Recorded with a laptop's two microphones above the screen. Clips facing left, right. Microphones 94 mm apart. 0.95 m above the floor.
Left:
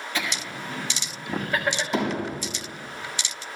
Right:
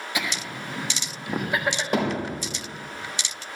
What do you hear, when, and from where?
0.1 s laughter: 15° right (ahead or behind), 1.7 m
1.9 s hammering: 55° right (ahead or behind), 4.5 m